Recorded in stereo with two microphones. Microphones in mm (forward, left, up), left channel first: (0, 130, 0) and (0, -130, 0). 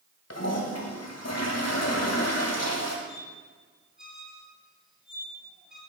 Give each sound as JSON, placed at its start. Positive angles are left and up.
{"t": 0.3, "sound": "a toilet flushing", "side_deg": 65, "distance_m": 2.0}
{"t": 3.1, "sound": "a squeak", "side_deg": 0, "distance_m": 2.5}